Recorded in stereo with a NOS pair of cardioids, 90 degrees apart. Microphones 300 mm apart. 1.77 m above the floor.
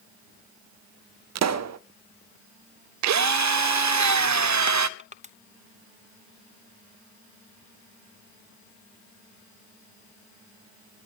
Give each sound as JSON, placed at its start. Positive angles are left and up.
{"t": 1.4, "sound": "a pop", "azimuth_deg": -60, "distance_m": 0.7}
{"t": 3.0, "sound": "a drill", "azimuth_deg": -70, "distance_m": 0.7}
{"t": 5.0, "sound": "crushing", "azimuth_deg": -25, "distance_m": 0.9}